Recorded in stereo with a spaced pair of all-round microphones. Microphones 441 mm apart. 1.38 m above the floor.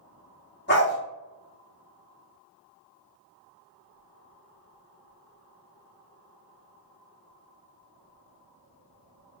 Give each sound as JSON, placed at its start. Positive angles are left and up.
{"t": 0.7, "sound": "a dog barking", "side_deg": 25, "distance_m": 0.9}